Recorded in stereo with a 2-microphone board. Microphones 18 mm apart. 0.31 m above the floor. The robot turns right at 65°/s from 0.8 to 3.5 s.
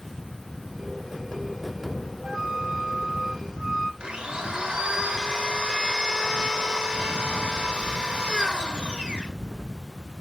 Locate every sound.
2.2 s a flute: 130° right, 6 m; by 3.9 s 50° right, 6 m
4.0 s a blender: 70° right (ahead or behind), 2.5 m